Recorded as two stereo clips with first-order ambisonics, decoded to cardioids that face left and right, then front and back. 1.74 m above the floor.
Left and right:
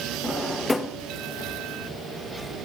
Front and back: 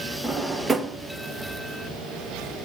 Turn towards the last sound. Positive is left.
turn(degrees=145)